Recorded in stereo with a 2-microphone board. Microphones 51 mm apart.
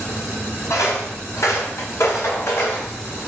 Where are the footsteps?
65° left (ahead or behind), 6 m; by 3.2 s 50° left (ahead or behind), 6.5 m.